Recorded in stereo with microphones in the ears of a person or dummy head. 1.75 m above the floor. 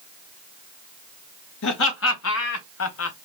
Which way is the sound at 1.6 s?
70° left (ahead or behind).